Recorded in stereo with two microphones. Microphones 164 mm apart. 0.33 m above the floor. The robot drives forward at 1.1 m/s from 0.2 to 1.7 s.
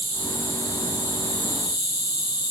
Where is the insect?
15° left (ahead or behind), 1.9 m; by 2.5 s 75° left (ahead or behind), 0.5 m.